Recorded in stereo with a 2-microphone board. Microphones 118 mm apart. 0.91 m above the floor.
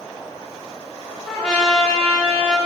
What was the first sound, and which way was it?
A trumpet, 5° left (ahead or behind).